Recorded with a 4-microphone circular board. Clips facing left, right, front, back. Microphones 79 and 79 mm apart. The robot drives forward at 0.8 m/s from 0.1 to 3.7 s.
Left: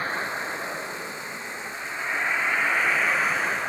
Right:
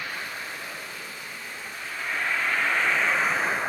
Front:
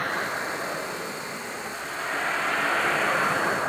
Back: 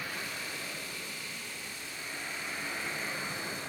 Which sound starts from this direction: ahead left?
A vehicle, at 0.0 s.